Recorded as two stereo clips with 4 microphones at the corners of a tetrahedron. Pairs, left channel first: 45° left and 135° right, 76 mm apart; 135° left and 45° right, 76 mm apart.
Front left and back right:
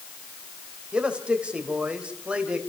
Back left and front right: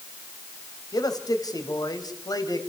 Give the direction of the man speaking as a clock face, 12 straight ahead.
7 o'clock.